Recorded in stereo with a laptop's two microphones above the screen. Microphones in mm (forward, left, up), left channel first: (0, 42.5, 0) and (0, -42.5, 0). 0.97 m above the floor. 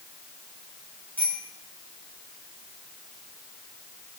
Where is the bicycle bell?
25° left (ahead or behind), 7.5 m.